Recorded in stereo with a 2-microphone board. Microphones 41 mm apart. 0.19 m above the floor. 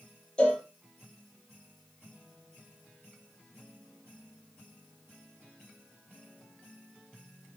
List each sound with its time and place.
0.4 s a cowbell: 25° left (ahead or behind), 4 m